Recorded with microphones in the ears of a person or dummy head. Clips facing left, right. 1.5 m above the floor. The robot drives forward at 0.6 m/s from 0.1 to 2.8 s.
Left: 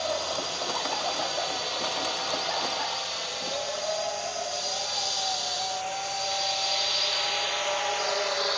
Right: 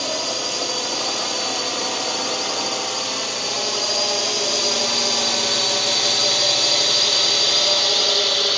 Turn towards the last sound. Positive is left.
turn(degrees=-45)  # may be behind; listen again after turning